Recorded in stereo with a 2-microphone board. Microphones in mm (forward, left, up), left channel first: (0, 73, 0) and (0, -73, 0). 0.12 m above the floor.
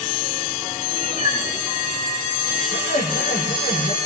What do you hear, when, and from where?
0.9 s a cat meowing: 50° left (ahead or behind), 9.5 m; by 2.6 s 45° left (ahead or behind), 11.5 m
2.7 s laughter: 80° left, 6.5 m